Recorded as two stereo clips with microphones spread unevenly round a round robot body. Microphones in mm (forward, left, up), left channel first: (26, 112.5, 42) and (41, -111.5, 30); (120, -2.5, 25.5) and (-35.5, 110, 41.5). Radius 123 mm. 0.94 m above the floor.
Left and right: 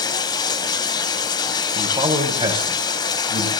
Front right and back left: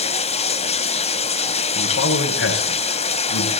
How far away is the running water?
About 1.8 m.